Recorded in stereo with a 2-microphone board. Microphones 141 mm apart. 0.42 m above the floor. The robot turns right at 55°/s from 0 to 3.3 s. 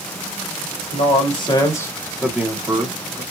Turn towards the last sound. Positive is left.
turn(degrees=-120)